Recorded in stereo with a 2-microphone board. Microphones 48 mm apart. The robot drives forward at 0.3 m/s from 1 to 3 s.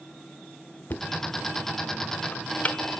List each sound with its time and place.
0.9 s knocking: 45° left (ahead or behind), 0.7 m; by 3.0 s 30° left (ahead or behind), 1.0 m